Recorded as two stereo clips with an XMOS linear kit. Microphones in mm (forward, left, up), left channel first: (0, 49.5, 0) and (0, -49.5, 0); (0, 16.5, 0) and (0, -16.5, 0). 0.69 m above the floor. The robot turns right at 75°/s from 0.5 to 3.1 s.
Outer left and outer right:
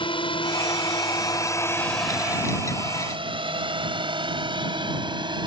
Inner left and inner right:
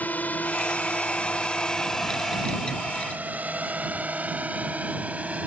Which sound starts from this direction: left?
A drone, at 0.0 s.